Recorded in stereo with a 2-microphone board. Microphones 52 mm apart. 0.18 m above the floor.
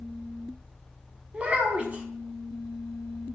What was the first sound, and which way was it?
A child speaking, 25° right (ahead or behind).